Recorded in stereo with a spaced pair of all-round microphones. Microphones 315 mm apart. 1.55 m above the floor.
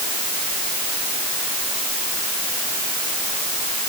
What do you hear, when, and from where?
Only background noise.